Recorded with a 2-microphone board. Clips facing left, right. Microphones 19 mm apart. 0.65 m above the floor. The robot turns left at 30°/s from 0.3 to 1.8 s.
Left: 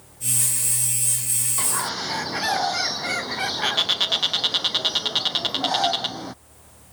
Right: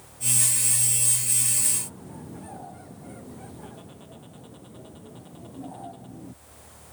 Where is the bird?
70° left (ahead or behind); by 6.3 s 75° left (ahead or behind).